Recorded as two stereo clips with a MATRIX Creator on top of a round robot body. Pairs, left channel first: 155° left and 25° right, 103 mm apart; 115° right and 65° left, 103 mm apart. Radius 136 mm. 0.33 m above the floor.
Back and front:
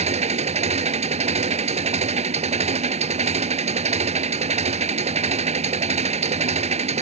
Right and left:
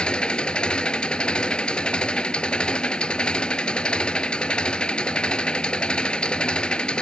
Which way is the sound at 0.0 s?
30° right.